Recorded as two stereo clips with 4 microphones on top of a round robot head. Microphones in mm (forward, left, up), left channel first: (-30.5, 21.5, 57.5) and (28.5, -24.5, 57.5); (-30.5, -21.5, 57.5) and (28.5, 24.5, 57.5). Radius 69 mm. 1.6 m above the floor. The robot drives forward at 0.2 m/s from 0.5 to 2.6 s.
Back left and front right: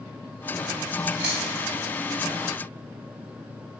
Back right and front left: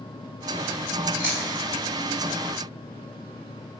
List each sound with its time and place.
1.2 s chewing: 105° right, 1.9 m; by 1.6 s 110° right, 1.9 m